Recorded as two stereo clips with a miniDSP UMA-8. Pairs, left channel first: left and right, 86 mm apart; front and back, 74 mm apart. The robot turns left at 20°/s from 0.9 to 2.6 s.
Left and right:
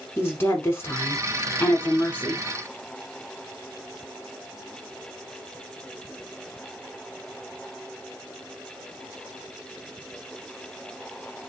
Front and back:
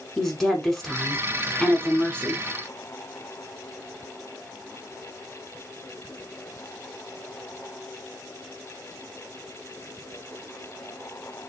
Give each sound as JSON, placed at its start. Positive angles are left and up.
{"t": 0.2, "sound": "a woman speaking", "azimuth_deg": 80, "distance_m": 1.2}